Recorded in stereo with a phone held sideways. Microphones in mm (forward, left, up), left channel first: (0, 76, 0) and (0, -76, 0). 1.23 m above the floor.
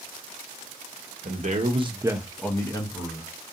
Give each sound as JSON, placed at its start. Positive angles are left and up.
{"t": 1.2, "sound": "a man speaking", "side_deg": -60, "distance_m": 0.7}